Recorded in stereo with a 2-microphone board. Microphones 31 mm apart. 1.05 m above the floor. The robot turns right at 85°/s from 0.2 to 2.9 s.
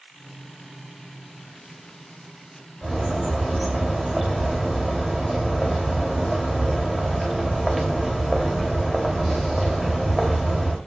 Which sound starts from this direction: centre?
A bird, at 2.8 s.